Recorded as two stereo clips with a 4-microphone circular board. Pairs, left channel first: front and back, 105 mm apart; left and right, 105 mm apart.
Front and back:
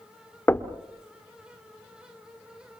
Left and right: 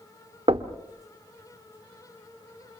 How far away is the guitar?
No guitar in this recording.